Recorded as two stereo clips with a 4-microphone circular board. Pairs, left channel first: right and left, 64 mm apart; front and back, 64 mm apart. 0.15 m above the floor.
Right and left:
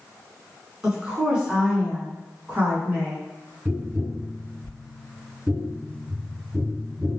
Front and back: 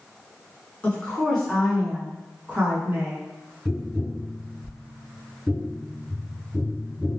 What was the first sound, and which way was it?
A woman speaking, 20° left.